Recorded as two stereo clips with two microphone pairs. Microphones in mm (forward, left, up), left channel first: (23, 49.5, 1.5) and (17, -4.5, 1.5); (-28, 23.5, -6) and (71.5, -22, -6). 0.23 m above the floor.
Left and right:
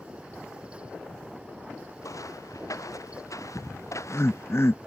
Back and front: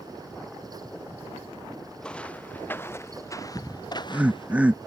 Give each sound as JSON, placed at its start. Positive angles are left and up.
{"t": 2.0, "sound": "footsteps", "azimuth_deg": 75}
{"t": 3.5, "sound": "laughter", "azimuth_deg": 50}